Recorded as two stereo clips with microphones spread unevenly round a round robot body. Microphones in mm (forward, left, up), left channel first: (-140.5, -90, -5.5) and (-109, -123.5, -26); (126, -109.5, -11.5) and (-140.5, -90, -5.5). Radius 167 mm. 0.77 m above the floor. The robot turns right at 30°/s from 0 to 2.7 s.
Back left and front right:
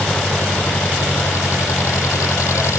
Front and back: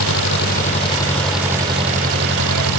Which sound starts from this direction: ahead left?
An engine running, at 0.0 s.